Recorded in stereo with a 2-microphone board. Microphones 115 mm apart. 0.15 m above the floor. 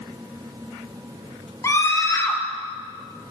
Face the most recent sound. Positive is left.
turn(degrees=25)  # may be behind; listen again after turning